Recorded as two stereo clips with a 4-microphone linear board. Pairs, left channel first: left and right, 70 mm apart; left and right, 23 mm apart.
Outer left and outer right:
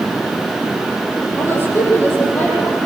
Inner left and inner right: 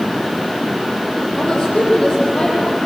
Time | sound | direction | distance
1.4 | a woman speaking | 30° left (ahead or behind) | 7.5 m